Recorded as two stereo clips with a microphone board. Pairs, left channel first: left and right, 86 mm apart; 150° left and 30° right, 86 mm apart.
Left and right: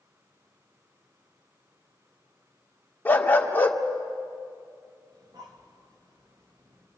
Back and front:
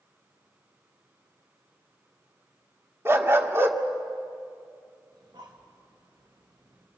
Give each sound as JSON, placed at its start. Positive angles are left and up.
{"t": 3.0, "sound": "a dog barking", "azimuth_deg": 25, "distance_m": 1.6}
{"t": 5.1, "sound": "breathing", "azimuth_deg": -55, "distance_m": 3.0}